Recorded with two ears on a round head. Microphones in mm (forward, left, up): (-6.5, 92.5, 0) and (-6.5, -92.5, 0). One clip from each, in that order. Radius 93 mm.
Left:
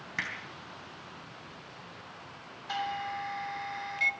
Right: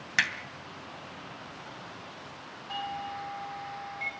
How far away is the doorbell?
About 3 m.